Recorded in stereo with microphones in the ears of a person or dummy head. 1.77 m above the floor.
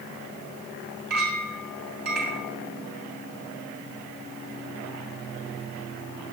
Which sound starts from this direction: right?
A clink, at 1.1 s.